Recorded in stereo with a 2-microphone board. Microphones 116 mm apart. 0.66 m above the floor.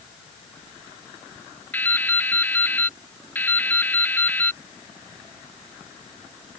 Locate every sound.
1.7 s dripping: 15° left (ahead or behind)